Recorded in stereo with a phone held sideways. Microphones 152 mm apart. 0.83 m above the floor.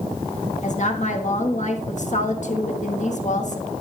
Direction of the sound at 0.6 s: 50° left (ahead or behind).